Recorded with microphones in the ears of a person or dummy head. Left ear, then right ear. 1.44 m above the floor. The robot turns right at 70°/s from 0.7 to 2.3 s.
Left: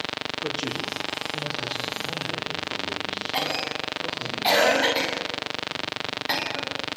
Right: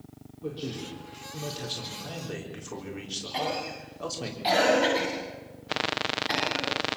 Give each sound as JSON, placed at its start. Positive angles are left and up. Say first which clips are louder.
{"t": 0.4, "sound": "a man speaking", "louder": "left 2 dB", "azimuth_deg": 120, "distance_m": 5.0}
{"t": 3.3, "sound": "a cough", "louder": "left 3 dB", "side_deg": 20, "distance_m": 10.0}